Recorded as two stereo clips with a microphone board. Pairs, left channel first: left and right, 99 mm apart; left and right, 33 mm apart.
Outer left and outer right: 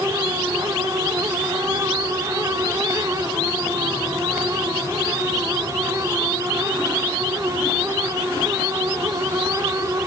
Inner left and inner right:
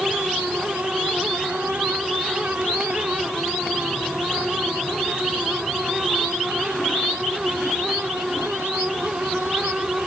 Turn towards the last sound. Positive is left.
No sound to turn to.